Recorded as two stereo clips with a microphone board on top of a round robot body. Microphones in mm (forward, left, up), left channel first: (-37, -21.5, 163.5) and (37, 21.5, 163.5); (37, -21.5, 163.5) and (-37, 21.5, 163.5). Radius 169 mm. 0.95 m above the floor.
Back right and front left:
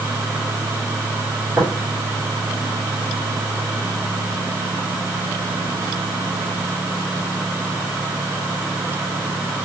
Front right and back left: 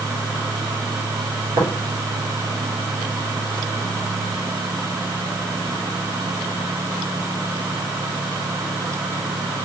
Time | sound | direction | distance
1.6 | tapping | 105° left | 2.5 m